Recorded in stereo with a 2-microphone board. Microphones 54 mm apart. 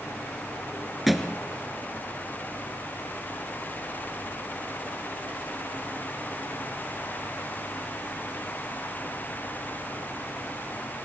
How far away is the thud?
About 1.5 m.